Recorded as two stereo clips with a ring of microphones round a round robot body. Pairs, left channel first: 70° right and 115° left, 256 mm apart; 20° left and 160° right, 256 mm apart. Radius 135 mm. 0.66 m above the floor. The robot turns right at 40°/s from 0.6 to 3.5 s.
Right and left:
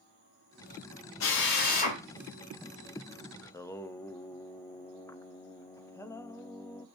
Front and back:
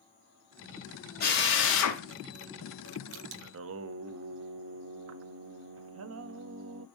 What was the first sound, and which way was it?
A drill, 30° right.